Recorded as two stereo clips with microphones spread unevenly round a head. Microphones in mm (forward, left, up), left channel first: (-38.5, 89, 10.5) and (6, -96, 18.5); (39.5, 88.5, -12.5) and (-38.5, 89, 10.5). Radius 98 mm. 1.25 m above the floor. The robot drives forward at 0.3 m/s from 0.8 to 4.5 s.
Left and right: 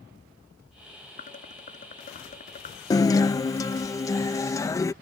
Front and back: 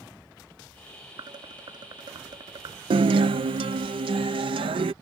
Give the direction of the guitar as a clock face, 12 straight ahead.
6 o'clock.